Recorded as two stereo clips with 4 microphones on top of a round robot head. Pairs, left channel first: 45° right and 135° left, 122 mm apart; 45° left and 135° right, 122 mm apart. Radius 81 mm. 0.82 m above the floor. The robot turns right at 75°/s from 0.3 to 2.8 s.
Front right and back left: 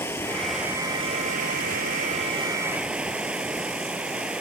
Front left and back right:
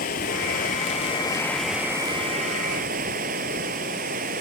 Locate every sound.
0.0 s running water: 30° left; by 4.4 s 140° right